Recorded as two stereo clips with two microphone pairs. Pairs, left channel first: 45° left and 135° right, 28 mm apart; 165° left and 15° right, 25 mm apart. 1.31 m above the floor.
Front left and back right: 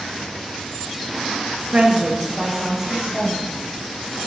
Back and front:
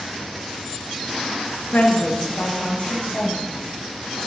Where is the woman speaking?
165° left, 1.3 m; by 3.4 s 145° left, 3.5 m.